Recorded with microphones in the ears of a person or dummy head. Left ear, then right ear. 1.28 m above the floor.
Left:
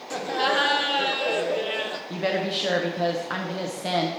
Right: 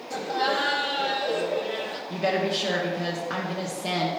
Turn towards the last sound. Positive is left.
turn(degrees=20)  # may be behind; listen again after turning